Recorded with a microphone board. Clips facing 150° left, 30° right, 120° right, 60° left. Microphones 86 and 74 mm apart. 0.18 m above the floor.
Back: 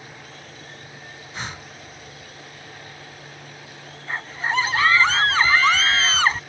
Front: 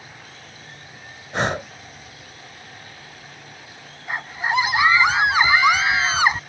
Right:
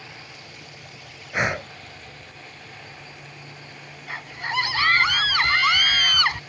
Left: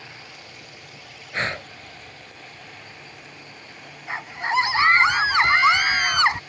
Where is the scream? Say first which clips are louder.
Front 2 dB, left 5 dB; 30° left.